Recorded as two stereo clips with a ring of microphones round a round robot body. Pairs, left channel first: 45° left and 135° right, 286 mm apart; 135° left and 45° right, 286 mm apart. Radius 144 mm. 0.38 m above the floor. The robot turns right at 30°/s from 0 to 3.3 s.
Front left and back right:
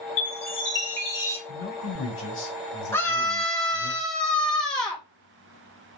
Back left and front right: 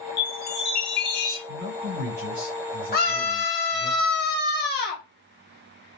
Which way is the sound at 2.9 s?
120° left.